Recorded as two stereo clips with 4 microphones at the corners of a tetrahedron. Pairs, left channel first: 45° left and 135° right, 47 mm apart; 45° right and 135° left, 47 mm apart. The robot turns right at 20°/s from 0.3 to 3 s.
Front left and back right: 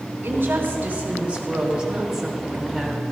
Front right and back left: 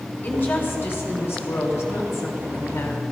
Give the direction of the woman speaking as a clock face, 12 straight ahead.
3 o'clock.